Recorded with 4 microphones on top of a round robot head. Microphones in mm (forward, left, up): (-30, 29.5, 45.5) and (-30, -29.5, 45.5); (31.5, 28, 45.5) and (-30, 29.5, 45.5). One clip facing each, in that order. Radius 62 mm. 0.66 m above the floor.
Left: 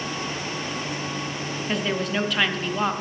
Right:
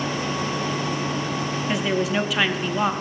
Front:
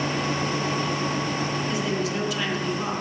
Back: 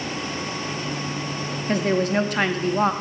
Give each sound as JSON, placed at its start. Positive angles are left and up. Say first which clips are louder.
{"t": 1.7, "sound": "a woman speaking", "louder": "right 2 dB, back 5 dB", "azimuth_deg": -175, "distance_m": 0.9}